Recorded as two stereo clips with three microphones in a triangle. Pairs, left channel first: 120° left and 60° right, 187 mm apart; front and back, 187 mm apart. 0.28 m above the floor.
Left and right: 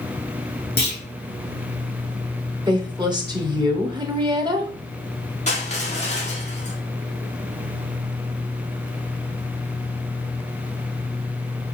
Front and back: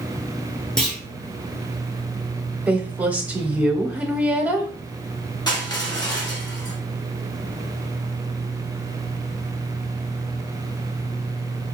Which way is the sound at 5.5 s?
70° left.